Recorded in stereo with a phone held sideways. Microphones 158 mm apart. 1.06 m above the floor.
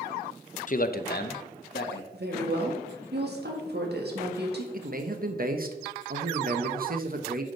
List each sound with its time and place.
0.7 s a man speaking: 50° left (ahead or behind), 0.5 m; by 2.0 s 85° left, 1.4 m
2.1 s a woman speaking: 75° right (ahead or behind), 1.8 m
4.7 s a man speaking: 60° right (ahead or behind), 1.0 m